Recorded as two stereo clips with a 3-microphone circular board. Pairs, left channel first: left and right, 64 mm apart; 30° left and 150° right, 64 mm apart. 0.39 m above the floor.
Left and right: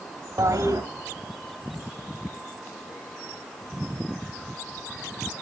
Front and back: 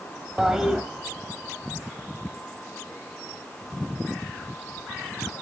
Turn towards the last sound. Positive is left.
turn(degrees=-70)